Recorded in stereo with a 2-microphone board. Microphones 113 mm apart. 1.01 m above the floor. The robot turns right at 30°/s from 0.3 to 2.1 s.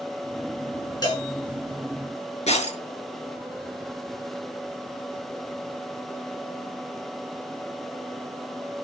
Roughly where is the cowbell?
Left.